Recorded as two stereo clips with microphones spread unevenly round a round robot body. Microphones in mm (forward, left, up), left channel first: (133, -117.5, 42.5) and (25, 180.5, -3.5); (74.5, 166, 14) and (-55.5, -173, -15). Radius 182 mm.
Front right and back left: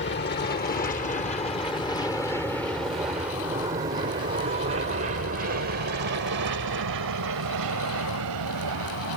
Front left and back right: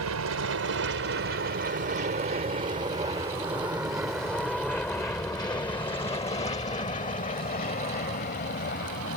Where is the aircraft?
120° right; by 9.2 s 130° left.